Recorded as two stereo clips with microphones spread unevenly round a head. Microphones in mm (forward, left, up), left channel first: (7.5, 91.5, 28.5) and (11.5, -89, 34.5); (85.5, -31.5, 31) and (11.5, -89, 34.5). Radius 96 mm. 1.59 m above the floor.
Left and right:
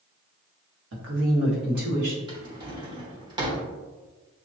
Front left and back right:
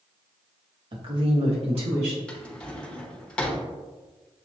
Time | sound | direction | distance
0.9 | a woman speaking | 105° right | 1.5 m
2.3 | a drawer | 40° right | 1.0 m